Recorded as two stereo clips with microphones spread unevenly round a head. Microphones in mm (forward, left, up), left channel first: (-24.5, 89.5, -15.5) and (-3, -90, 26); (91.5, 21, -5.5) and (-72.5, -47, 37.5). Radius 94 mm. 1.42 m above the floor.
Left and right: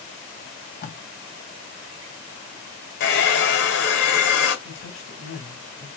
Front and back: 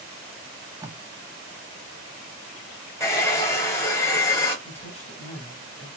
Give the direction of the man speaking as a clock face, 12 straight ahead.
9 o'clock.